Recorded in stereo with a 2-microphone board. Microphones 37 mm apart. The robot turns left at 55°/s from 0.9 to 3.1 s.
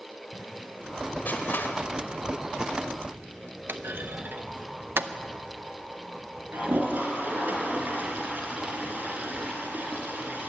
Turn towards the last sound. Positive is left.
turn(degrees=-50)  # may be behind; listen again after turning